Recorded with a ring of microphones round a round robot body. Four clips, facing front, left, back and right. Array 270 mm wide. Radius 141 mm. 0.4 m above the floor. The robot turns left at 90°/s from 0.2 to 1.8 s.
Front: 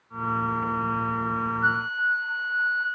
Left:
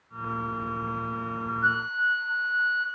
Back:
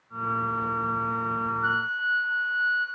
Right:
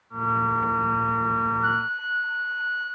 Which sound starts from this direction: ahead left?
A flute, at 1.6 s.